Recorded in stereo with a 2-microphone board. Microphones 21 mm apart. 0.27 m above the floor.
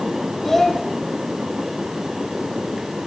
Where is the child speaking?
15° left (ahead or behind), 0.9 m.